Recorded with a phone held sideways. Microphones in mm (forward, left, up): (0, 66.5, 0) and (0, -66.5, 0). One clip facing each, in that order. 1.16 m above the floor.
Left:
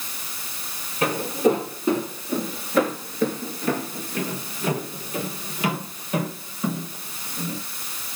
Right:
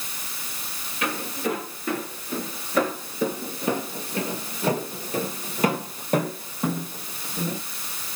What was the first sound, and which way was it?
Footsteps, 35° left (ahead or behind).